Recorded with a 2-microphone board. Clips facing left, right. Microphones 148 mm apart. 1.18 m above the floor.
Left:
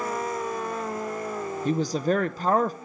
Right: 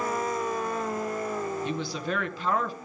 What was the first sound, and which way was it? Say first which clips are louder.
A woman speaking: left 7 dB; 45° left (ahead or behind).